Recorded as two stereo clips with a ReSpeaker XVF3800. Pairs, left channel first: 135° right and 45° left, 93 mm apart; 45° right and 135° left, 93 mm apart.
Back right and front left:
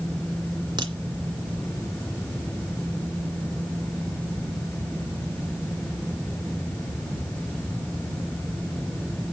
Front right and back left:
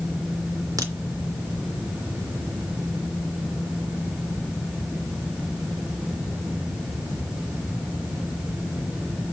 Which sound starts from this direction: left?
A crack, at 0.8 s.